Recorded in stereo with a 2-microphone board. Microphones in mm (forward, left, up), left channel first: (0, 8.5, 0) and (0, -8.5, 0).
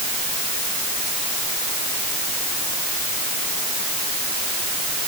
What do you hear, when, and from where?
Only background noise.